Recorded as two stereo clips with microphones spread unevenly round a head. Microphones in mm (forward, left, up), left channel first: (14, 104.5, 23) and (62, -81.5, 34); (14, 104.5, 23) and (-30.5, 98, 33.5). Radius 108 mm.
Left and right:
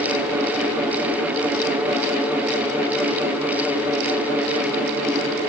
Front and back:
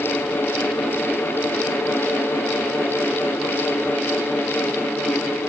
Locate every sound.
Only background noise.